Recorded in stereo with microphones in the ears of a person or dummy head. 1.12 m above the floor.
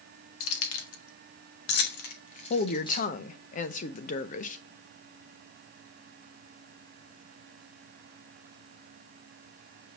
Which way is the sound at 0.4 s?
90° left.